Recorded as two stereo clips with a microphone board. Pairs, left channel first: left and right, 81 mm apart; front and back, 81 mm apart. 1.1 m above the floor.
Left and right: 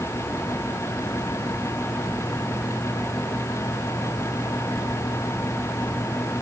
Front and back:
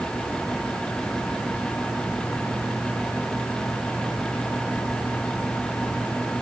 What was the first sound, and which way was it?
Only background noise.